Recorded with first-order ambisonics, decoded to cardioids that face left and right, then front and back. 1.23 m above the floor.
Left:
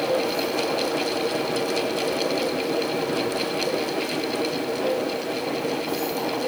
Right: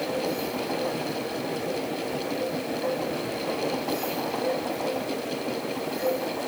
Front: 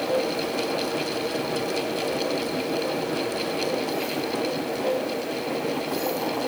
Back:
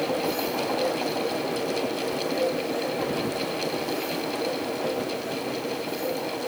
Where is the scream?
No scream in this recording.